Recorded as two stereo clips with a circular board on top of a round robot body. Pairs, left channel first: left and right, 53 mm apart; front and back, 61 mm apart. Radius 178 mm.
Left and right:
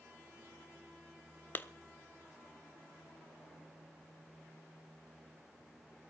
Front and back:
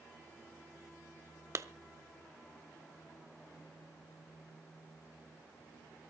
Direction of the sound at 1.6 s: 145° left.